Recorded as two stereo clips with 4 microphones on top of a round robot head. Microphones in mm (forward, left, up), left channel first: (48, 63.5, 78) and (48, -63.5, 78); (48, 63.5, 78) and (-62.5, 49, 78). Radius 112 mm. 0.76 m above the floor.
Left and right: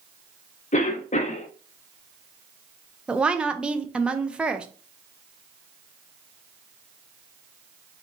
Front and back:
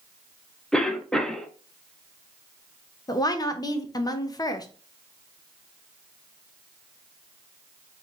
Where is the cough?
90° left, 1.1 m.